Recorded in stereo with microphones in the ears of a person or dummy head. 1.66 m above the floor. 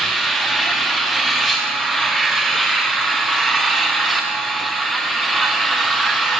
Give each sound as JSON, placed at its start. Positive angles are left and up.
{"t": 0.0, "sound": "an engine running", "side_deg": -5, "distance_m": 1.2}